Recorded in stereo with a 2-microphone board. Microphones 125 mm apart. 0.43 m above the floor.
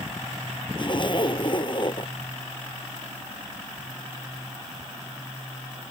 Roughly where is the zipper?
Left.